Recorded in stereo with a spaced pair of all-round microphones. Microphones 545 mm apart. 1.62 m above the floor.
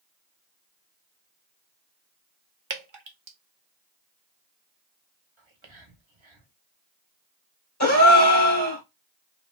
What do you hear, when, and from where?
2.7 s dripping: 55° right (ahead or behind), 0.7 m
5.4 s whispering: 60° right (ahead or behind), 1.0 m
7.8 s a gasp: 30° left (ahead or behind), 1.3 m